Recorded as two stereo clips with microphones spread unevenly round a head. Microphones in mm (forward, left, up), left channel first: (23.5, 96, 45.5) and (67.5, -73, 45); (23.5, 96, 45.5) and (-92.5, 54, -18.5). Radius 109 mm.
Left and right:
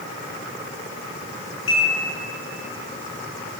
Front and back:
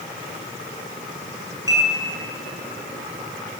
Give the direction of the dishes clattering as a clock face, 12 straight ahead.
8 o'clock.